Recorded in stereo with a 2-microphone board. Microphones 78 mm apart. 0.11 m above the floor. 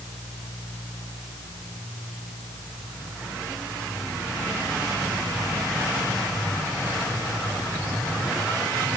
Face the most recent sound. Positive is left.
No sound to turn to.